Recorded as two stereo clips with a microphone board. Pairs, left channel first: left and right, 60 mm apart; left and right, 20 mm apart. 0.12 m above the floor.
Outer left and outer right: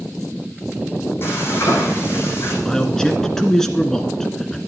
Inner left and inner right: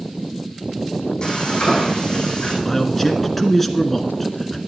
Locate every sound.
1.2 s frying: 40° left (ahead or behind), 5.5 m
2.6 s a man speaking: 10° left (ahead or behind), 1.5 m